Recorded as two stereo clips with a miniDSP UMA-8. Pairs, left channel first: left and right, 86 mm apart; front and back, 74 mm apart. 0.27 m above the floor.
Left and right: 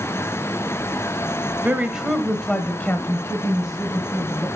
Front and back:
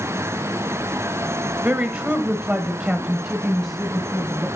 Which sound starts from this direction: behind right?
A woman speaking, at 1.6 s.